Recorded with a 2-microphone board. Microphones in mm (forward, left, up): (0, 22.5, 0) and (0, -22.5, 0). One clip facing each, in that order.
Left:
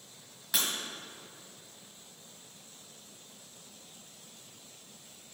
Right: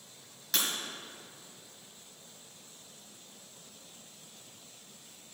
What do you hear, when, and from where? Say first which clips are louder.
0.5 s breaking glass: even; 10° left (ahead or behind), 1.5 m